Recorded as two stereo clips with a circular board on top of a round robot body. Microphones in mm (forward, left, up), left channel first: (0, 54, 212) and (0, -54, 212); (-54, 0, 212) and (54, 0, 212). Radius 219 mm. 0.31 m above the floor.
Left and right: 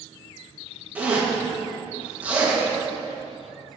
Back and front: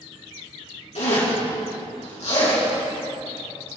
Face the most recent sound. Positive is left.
turn(degrees=-165)